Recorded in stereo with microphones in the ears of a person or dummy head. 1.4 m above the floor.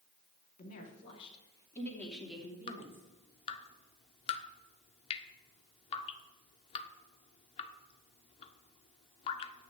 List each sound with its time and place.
0.6 s a woman speaking: 50° left (ahead or behind), 3 m; by 3.0 s 15° right (ahead or behind), 3.5 m
2.7 s dripping: 35° left (ahead or behind), 0.8 m